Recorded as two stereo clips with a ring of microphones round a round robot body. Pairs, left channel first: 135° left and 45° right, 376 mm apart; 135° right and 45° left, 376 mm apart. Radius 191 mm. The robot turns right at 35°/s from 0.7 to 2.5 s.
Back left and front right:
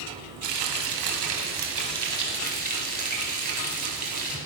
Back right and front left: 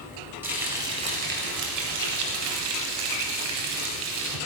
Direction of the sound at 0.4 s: 40° right.